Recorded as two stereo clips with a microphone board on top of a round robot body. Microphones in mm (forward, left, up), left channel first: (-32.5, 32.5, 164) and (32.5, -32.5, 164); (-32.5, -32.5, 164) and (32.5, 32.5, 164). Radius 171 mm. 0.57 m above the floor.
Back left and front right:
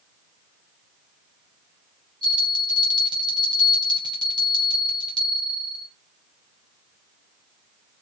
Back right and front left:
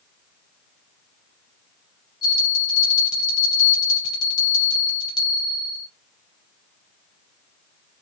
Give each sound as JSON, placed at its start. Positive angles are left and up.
{"t": 2.2, "sound": "a bell", "azimuth_deg": -85, "distance_m": 0.5}